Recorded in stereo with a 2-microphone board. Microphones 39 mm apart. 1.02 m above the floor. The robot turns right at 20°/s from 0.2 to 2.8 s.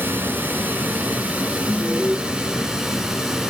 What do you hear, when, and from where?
0.0 s running water: 65° right, 1.4 m; by 3.5 s 10° right, 1.4 m
1.7 s an alarm: 20° left (ahead or behind), 1.1 m; by 2.2 s 25° left (ahead or behind), 1.1 m